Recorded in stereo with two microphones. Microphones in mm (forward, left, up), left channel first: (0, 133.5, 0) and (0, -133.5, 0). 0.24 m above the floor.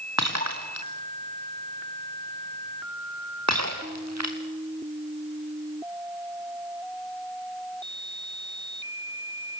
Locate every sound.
0.2 s breaking glass: 80° right, 4 m